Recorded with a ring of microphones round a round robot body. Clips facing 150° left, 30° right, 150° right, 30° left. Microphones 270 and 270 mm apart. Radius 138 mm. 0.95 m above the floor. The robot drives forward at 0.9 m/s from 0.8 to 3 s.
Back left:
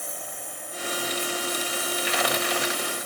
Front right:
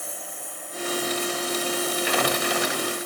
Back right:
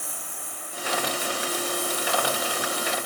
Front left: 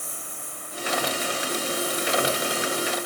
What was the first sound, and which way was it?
A lawn mower, 115° right.